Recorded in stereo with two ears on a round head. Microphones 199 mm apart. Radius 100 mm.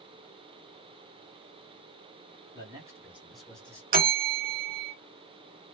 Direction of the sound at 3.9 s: 40° right (ahead or behind).